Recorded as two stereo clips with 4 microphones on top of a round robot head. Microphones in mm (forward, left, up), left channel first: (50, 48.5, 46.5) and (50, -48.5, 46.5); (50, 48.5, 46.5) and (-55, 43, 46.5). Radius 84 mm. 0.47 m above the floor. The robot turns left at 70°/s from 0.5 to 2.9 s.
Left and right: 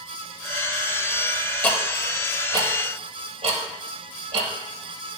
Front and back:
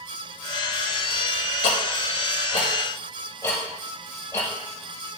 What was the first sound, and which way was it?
Ticking, 20° left.